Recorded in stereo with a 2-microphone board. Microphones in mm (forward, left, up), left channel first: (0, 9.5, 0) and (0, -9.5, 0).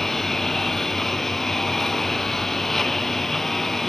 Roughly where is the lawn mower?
Centre.